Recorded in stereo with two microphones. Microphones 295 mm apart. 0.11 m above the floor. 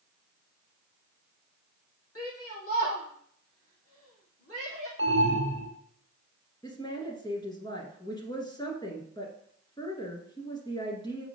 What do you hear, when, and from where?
2.1 s a shout: 55° left (ahead or behind), 4.5 m
5.0 s an alarm: 40° right (ahead or behind), 1.9 m
6.6 s a woman speaking: 15° left (ahead or behind), 1.5 m